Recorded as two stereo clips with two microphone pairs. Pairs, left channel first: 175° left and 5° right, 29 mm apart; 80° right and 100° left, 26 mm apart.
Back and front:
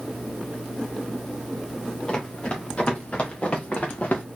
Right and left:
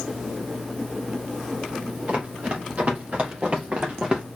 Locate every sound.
2.1 s running footsteps: 115° left, 2.5 m; by 4.2 s 155° left, 1.8 m